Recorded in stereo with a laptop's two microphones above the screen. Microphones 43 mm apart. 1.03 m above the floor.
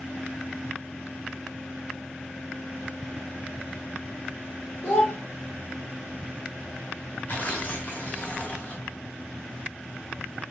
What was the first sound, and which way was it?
A child speaking, 75° left (ahead or behind).